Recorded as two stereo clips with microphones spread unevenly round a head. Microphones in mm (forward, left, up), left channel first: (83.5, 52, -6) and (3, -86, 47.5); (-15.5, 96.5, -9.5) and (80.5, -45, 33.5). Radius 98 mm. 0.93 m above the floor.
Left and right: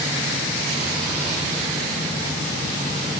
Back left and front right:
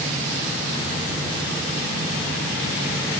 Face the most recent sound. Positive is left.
No sound to turn to.